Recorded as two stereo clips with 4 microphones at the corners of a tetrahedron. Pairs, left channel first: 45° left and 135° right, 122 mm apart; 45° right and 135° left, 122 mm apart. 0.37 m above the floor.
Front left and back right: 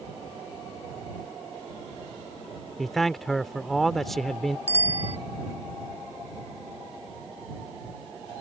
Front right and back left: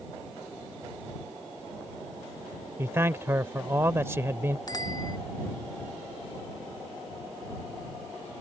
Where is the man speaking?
130° left.